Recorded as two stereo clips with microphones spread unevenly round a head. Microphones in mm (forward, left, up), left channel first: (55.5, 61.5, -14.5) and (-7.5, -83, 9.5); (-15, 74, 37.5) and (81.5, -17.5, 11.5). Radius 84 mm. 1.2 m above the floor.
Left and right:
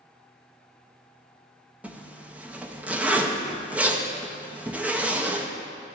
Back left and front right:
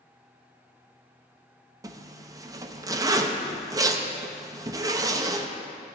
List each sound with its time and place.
1.8 s a zipper: 25° right, 0.7 m